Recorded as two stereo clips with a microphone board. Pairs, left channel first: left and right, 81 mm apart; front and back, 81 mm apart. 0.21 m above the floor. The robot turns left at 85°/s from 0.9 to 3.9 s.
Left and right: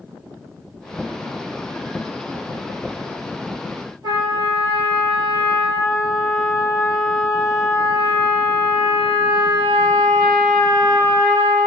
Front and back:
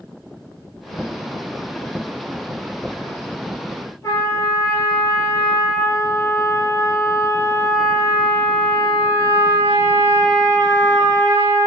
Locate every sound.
4.0 s a trumpet: 55° right, 1.3 m